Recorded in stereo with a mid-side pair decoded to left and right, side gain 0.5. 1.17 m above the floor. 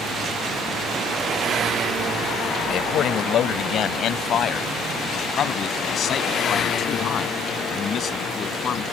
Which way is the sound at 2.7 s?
60° left.